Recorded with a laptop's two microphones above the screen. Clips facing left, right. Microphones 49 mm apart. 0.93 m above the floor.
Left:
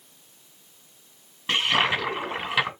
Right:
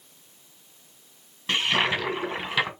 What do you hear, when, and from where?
1.5 s a toilet flushing: 10° left (ahead or behind), 1.9 m